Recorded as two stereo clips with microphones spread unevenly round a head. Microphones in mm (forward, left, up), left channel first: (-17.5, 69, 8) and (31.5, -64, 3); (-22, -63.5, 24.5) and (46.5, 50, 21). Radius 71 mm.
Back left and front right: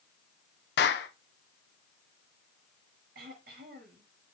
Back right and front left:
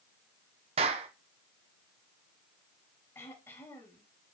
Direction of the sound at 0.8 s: 110° left.